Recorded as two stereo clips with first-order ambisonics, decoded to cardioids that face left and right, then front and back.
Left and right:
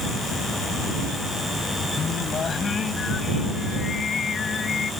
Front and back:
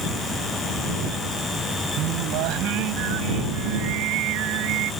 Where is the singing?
160° left.